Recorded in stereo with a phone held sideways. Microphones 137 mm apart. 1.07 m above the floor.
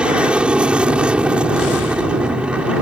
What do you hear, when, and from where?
0.0 s an aircraft: 5° right (ahead or behind)